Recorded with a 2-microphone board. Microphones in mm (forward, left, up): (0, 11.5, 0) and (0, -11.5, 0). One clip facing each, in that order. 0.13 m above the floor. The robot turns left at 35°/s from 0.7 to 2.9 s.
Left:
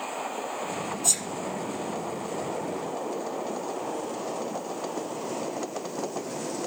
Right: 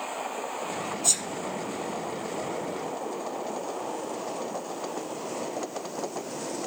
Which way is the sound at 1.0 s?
15° right (ahead or behind).